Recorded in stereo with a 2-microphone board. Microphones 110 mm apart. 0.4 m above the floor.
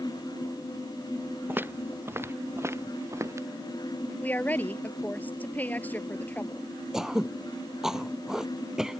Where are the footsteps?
20° right (ahead or behind); by 3.5 s 30° right (ahead or behind).